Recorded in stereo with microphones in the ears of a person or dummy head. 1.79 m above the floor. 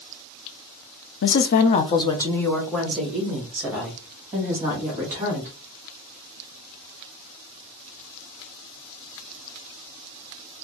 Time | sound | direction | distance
1.2 | a woman speaking | 60° left (ahead or behind) | 0.5 m